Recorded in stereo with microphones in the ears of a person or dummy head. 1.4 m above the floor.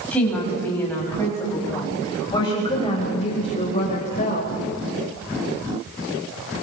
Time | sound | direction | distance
0.1 | a woman speaking | 5° left (ahead or behind) | 7.5 m